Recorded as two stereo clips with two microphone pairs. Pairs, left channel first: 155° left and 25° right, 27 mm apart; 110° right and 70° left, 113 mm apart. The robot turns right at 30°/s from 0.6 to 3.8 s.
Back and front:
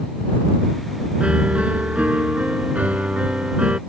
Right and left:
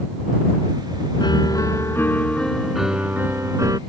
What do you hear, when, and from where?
1.2 s a piano: 65° right; by 3.8 s 15° left